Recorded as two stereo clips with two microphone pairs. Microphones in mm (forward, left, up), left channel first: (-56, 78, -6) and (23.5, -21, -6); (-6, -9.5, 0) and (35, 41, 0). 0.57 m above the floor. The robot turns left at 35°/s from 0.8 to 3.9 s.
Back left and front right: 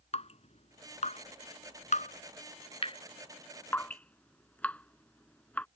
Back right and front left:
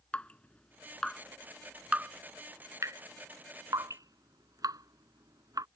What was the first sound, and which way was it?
Dripping, 160° left.